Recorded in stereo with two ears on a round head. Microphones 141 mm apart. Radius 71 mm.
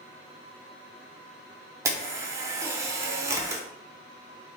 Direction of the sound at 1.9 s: 20° right (ahead or behind).